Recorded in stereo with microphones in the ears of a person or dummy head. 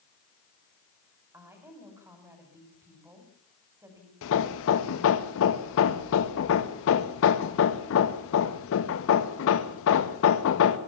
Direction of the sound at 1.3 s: 15° right (ahead or behind).